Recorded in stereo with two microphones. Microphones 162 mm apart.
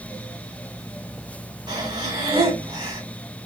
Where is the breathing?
25° right (ahead or behind), 3.5 m.